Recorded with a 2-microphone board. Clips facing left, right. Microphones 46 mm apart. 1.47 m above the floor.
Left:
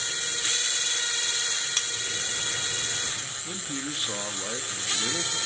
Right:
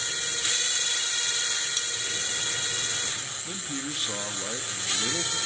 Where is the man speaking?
Centre (ahead or behind), 1.8 m.